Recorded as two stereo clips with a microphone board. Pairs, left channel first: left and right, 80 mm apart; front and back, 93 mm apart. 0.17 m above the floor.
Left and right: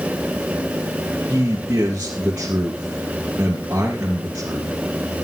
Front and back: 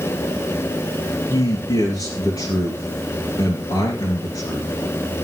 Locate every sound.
1.3 s a man speaking: 30° right, 3 m